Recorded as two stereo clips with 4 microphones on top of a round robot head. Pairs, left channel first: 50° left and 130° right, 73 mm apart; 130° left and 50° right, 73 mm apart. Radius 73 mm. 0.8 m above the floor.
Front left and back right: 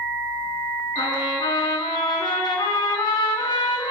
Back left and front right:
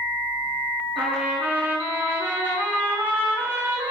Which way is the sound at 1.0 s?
15° left.